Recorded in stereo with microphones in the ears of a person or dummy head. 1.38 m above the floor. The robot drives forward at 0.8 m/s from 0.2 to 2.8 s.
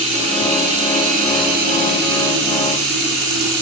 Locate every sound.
0.0 s running water: 35° right (ahead or behind), 2.5 m; by 3.6 s 65° right (ahead or behind), 1.4 m